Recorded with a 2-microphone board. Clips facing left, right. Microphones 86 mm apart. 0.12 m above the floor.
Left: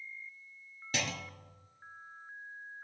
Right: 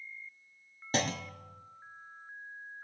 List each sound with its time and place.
0.9 s a clunk: 35° right (ahead or behind), 0.7 m